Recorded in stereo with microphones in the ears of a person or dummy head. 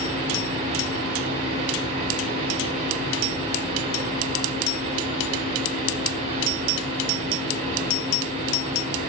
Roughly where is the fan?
Right.